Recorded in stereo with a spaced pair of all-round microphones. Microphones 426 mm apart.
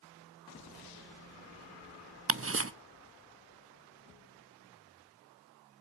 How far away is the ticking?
About 0.5 m.